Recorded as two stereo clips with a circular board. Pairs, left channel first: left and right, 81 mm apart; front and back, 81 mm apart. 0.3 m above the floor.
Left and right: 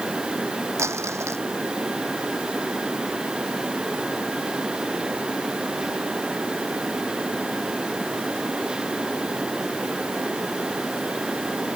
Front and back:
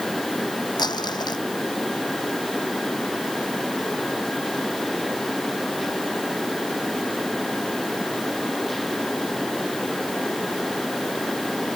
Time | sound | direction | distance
0.8 | crumpling | 35° right | ?